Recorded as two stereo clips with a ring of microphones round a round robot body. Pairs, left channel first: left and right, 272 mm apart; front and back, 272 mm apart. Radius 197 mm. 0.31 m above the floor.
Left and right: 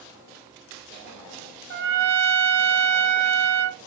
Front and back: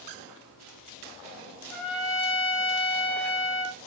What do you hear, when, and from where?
1.7 s a trumpet: 90° right, 0.7 m